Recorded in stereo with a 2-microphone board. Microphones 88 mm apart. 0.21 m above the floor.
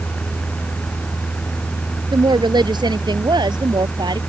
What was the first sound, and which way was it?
A woman speaking, 55° right (ahead or behind).